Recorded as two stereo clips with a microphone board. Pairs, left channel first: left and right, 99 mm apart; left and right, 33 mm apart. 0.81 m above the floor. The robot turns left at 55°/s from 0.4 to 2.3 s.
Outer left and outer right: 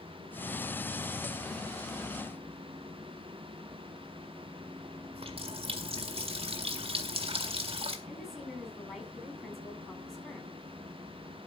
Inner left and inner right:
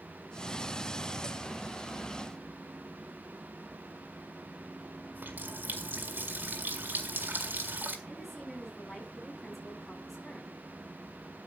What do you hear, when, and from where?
5.1 s a running tap: 65° right (ahead or behind), 1.8 m
8.1 s a woman speaking: 5° left (ahead or behind), 7.5 m